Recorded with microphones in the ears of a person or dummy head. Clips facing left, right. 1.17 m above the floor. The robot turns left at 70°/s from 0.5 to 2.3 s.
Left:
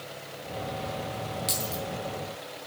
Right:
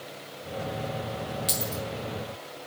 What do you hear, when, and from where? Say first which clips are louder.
1.5 s a dropped coin: right 1 dB; 5° right (ahead or behind), 1.2 m; by 1.8 s 15° left (ahead or behind), 1.2 m